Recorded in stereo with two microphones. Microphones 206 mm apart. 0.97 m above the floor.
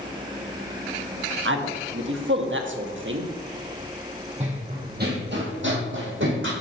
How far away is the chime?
I don't hear a chime.